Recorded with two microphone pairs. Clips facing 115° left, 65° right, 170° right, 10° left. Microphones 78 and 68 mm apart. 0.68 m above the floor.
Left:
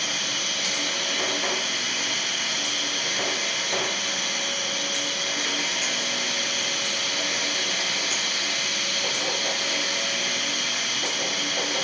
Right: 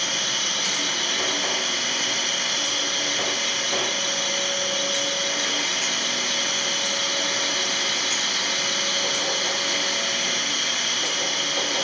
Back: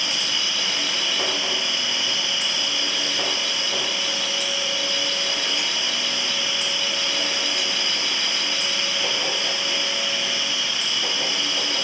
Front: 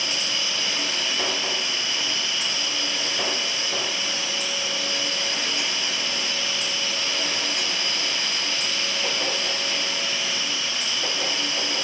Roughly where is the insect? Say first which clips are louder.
Right 2 dB, back 1 dB; ahead right.